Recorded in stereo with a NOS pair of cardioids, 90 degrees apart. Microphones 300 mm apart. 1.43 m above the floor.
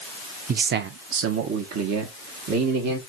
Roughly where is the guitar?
I don't hear a guitar.